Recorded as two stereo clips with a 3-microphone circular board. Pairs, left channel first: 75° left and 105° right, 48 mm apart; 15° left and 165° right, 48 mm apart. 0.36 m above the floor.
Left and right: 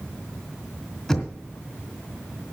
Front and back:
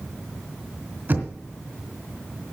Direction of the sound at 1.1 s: 155° left.